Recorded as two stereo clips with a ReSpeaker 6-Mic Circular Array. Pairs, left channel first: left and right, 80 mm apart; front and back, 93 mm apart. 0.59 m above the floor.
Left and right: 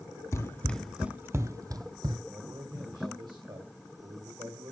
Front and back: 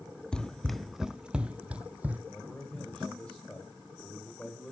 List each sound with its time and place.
0.3 s running footsteps: 75° left, 0.7 m; by 2.2 s 105° right, 1.2 m
2.3 s a man speaking: 75° right, 2.5 m